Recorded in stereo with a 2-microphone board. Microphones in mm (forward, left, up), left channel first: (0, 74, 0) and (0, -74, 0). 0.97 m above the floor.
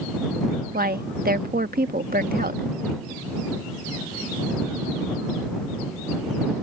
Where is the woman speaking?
75° right (ahead or behind).